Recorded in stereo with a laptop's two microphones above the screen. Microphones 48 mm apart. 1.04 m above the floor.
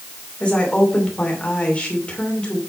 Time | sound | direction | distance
0.4 | a woman speaking | 25° left (ahead or behind) | 2.5 m